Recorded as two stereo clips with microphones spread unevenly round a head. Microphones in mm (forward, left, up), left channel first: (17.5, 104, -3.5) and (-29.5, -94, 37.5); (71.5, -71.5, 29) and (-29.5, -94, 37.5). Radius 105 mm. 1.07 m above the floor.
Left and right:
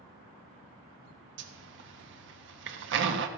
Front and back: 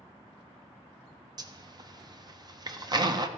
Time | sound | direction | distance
1.4 | a zipper | 125° right | 1.0 m